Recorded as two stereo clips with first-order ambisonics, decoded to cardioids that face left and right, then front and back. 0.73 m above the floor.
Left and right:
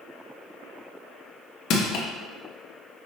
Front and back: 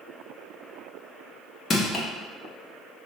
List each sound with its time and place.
1.7 s crushing: 65° left, 0.8 m